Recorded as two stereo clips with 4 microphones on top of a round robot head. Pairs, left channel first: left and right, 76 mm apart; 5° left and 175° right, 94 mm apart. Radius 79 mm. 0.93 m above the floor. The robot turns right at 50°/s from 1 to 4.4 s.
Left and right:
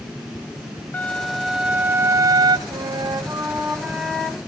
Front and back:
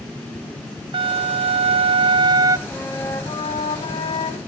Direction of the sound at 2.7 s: 85° right.